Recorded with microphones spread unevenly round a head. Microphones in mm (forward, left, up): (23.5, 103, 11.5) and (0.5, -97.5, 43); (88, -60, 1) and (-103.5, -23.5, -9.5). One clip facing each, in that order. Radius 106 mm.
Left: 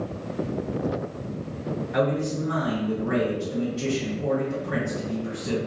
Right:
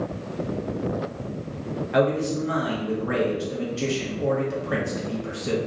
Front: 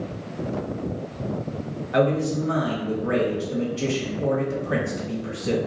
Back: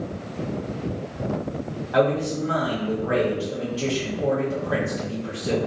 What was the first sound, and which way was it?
A man speaking, 75° right.